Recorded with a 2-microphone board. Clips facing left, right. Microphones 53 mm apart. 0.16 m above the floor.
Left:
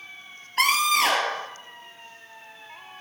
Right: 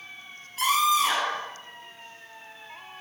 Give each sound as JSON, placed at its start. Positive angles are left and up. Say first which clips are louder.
{"t": 0.6, "sound": "a scream", "louder": "left 1 dB", "side_deg": 65, "distance_m": 3.0}